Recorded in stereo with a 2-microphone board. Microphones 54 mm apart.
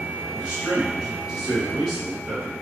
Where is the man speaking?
10° right (ahead or behind), 1.4 m.